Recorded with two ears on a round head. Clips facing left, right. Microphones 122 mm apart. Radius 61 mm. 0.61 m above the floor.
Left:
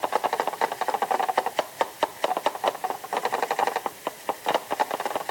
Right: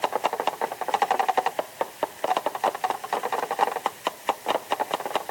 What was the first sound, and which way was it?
Only background noise.